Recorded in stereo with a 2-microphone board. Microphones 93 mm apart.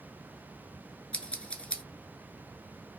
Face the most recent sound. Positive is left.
turn(degrees=10)  # may be behind; listen again after turning